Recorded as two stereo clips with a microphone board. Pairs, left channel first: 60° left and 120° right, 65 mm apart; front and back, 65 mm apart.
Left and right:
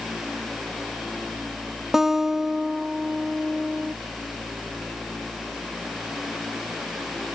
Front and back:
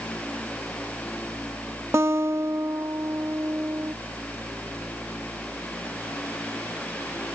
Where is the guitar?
155° left.